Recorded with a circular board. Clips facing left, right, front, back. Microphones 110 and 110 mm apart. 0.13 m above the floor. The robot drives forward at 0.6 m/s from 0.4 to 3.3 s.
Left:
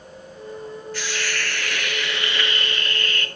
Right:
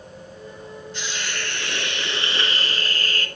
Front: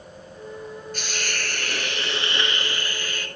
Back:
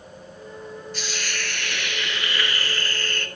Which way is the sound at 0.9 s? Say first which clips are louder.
Left 2 dB, front 1 dB; 25° right.